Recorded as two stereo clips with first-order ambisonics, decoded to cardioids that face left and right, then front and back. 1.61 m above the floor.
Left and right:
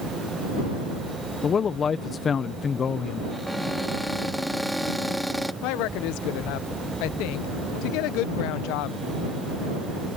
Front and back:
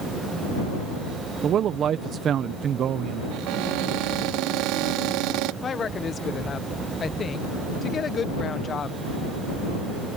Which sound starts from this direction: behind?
A cupboard door, at 3.3 s.